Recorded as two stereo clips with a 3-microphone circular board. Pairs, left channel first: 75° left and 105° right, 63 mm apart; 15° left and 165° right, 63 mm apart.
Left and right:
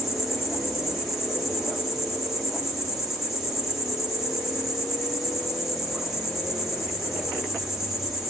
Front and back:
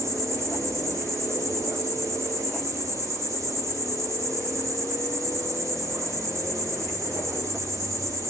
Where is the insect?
175° left, 4 m.